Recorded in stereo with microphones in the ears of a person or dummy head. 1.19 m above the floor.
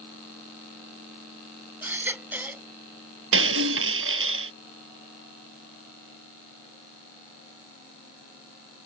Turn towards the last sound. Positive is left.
turn(degrees=-80)